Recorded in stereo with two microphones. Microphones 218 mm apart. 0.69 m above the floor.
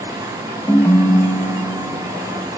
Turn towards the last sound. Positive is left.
turn(degrees=10)  # may be behind; listen again after turning